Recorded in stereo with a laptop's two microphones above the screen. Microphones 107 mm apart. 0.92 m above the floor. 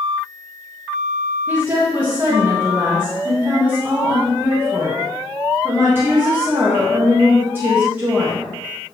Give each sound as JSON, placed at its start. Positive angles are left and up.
{"t": 1.5, "sound": "a woman speaking", "side_deg": -20, "distance_m": 0.9}